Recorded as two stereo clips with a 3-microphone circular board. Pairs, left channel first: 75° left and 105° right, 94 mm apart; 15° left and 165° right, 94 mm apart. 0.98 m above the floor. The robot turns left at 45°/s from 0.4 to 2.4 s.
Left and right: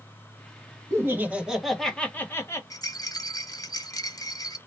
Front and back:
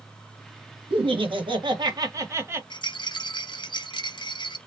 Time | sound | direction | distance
0.9 | laughter | 160° right | 1.3 m
2.7 | a rattle | 35° left | 0.7 m